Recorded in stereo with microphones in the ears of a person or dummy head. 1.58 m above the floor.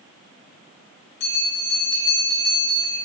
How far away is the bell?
About 1.1 m.